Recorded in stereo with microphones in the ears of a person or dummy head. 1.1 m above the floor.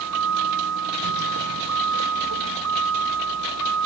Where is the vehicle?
75° right (ahead or behind); by 3.9 s 85° right.